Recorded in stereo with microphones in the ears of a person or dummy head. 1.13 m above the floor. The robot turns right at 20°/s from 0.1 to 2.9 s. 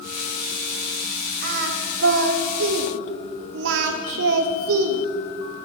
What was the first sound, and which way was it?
Singing, 45° right (ahead or behind).